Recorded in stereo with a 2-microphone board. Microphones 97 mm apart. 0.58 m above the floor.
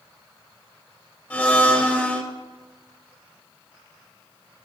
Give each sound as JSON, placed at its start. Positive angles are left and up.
{"t": 1.3, "sound": "a blender", "side_deg": 15, "distance_m": 1.1}